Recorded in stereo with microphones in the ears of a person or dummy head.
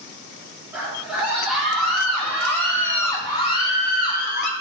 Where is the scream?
10° right (ahead or behind), 3.5 m; by 4.5 s 55° left (ahead or behind), 1.2 m.